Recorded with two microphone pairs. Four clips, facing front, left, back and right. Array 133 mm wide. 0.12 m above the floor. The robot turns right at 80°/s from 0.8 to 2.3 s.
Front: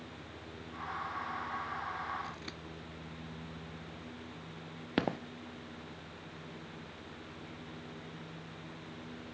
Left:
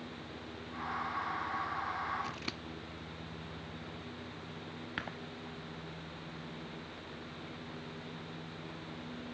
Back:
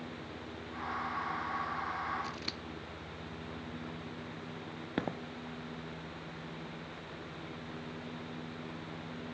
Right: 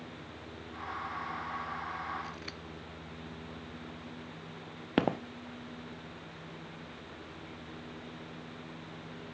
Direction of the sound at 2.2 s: 95° left.